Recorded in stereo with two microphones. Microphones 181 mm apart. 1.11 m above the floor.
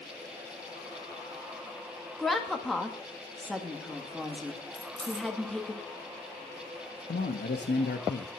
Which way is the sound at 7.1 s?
75° left (ahead or behind).